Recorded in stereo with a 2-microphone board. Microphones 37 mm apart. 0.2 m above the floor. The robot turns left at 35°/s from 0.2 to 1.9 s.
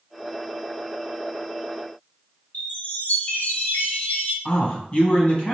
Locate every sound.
2.5 s a chime: 50° left (ahead or behind), 1.7 m
4.5 s a man speaking: 35° left (ahead or behind), 1.2 m